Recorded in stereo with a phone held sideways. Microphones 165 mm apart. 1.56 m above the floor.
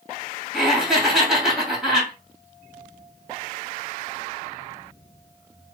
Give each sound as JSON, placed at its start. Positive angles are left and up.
{"t": 0.5, "sound": "laughter", "side_deg": 0, "distance_m": 2.0}